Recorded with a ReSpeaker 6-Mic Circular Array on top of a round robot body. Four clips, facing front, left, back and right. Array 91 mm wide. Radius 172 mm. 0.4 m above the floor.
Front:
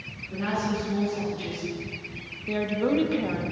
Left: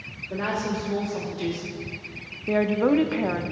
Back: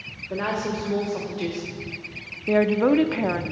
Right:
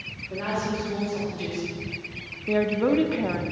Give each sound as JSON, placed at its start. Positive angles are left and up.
{"t": 0.3, "sound": "a woman speaking", "azimuth_deg": 160, "distance_m": 2.0}
{"t": 2.5, "sound": "a woman speaking", "azimuth_deg": 160, "distance_m": 1.0}